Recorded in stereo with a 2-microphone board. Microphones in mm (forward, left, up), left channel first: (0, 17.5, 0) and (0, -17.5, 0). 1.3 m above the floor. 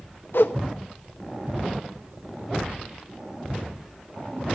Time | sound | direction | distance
0.3 | a whoosh | 65° left (ahead or behind) | 1.0 m